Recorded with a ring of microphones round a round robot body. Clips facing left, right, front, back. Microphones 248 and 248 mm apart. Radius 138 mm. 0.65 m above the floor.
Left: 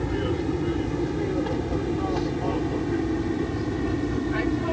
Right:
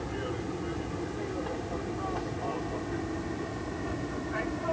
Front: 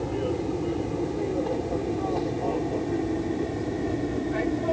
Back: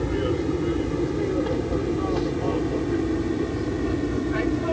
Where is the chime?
I don't hear a chime.